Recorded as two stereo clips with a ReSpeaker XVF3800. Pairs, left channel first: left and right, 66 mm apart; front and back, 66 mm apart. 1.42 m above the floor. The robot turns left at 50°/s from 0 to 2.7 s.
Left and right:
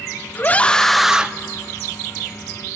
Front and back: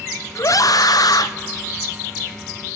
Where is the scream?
30° left, 0.9 m; by 1.3 s 20° right, 0.9 m.